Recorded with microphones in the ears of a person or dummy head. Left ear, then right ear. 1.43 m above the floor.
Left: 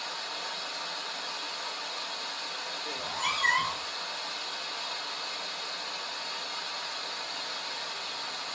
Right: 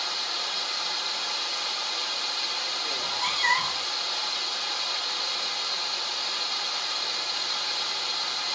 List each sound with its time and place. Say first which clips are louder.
0.0 s running water: right 7 dB; 60° right (ahead or behind), 0.8 m
3.0 s a cat meowing: right 1 dB; 15° right (ahead or behind), 0.9 m